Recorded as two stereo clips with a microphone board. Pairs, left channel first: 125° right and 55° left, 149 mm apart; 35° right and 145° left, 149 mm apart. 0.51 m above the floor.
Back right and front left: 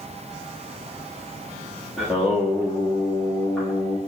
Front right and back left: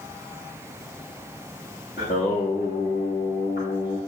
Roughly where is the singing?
Ahead right.